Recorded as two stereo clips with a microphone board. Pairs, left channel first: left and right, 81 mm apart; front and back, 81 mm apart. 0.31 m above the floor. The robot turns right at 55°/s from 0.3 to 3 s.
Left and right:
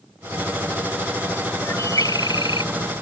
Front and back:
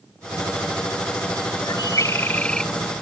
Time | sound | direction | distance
1.6 | a bird | 30° left | ?